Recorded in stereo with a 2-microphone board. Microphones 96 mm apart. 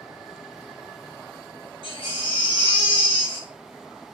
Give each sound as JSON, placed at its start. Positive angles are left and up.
{"t": 1.8, "sound": "a baby crying", "side_deg": 65, "distance_m": 1.4}